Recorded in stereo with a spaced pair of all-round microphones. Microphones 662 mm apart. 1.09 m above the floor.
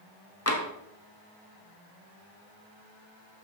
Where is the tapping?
20° left (ahead or behind), 1.9 m.